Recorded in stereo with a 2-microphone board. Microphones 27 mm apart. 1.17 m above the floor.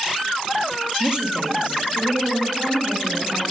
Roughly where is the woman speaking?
Right.